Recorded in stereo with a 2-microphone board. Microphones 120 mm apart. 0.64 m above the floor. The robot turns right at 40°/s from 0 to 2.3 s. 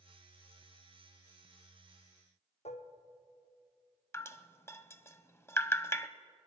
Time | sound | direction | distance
2.6 | dishes clattering | 70° left (ahead or behind) | 0.9 m
4.1 | dripping | 25° left (ahead or behind) | 0.6 m